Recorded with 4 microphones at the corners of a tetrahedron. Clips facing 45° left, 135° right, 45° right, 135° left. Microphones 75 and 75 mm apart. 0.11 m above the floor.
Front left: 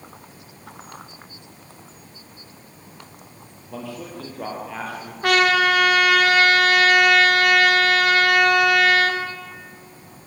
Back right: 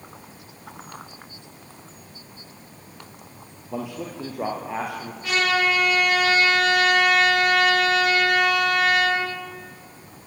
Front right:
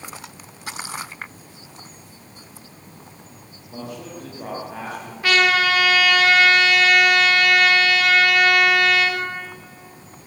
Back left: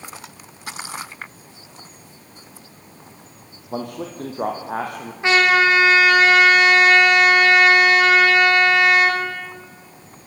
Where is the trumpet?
65° left, 5.5 m.